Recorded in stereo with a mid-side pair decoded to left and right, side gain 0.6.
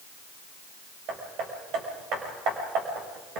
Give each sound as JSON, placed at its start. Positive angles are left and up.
{"t": 1.1, "sound": "hammering", "azimuth_deg": -65, "distance_m": 6.0}